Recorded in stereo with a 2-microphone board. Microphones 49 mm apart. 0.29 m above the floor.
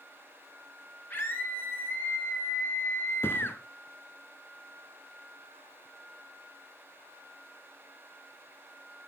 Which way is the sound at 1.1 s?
45° left (ahead or behind).